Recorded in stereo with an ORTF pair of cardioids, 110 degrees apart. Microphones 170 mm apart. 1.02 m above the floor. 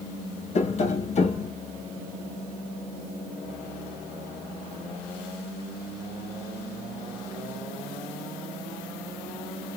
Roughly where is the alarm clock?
No alarm clock in this recording.